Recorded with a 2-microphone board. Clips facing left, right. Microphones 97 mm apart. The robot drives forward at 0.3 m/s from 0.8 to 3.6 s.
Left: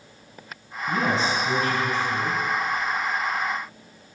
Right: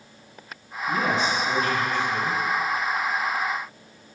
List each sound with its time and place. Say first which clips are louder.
0.9 s a man speaking: even; 35° left (ahead or behind), 1.4 m; by 2.4 s 30° left (ahead or behind), 1.5 m